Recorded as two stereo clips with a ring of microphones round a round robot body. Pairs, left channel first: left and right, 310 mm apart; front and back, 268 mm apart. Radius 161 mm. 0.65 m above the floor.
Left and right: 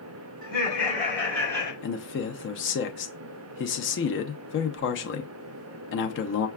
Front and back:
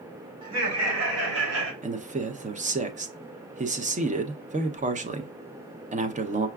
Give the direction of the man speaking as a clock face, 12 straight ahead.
8 o'clock.